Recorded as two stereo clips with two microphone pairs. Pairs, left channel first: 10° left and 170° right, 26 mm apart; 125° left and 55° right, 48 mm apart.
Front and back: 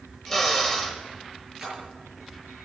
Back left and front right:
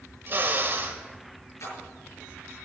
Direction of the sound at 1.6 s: 115° left.